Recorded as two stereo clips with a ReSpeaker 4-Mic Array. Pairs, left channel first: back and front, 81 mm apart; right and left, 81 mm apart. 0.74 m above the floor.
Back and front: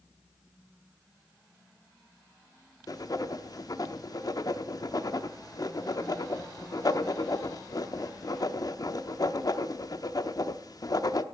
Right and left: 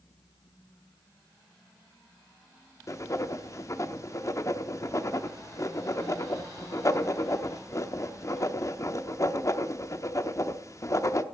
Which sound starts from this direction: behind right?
Writing, at 2.9 s.